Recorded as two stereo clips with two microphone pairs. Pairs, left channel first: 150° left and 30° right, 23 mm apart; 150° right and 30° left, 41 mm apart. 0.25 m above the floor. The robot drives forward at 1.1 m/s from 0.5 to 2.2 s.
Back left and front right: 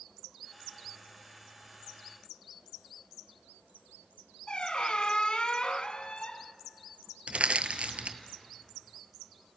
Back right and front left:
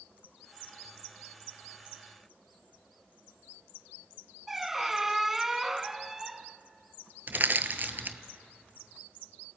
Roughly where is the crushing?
Ahead.